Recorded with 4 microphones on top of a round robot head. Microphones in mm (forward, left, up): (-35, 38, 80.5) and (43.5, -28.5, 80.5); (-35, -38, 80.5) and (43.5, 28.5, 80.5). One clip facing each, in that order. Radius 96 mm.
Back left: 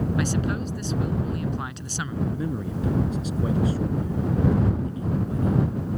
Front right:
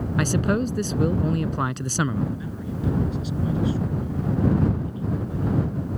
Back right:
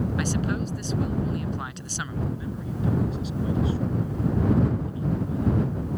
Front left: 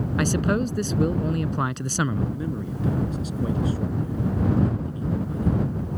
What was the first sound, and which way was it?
A man speaking, straight ahead.